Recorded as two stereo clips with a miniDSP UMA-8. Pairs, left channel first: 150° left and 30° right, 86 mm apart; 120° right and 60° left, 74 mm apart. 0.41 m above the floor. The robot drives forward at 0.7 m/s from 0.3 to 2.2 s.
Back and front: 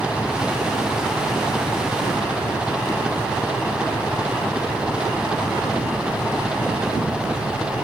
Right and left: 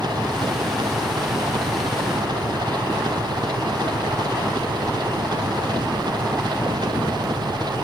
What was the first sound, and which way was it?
An engine running, 50° left.